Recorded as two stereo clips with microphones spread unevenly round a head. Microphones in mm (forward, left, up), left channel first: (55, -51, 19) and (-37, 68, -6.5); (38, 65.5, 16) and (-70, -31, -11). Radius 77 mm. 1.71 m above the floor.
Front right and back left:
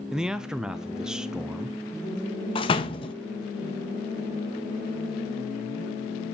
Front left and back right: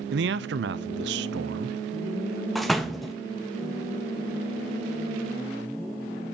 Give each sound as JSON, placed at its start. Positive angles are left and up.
{"t": 0.1, "sound": "a man speaking", "azimuth_deg": -145, "distance_m": 0.7}
{"t": 2.5, "sound": "a door slam", "azimuth_deg": -35, "distance_m": 1.1}